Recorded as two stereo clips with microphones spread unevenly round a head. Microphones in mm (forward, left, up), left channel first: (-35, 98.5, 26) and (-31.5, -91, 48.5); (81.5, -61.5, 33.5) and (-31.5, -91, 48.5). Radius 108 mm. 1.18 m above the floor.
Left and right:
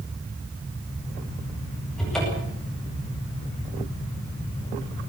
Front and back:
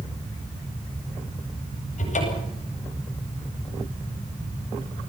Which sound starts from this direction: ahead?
A cupboard door, at 2.0 s.